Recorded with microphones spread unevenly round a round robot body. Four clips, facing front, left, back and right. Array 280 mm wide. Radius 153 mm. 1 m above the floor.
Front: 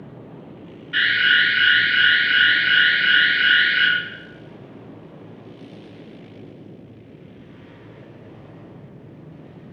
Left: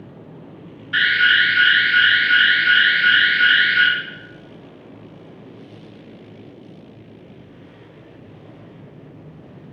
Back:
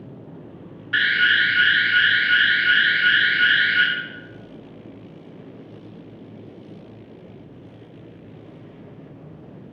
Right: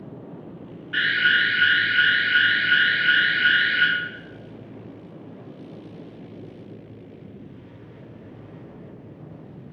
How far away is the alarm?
About 2 m.